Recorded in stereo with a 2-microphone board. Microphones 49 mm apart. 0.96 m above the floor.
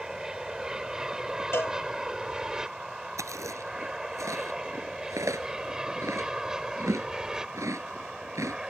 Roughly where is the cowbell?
Left.